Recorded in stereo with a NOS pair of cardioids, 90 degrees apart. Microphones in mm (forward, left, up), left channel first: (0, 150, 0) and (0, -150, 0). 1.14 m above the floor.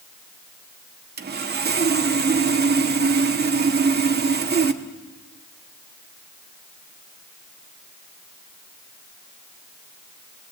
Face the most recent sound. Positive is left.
turn(degrees=-35)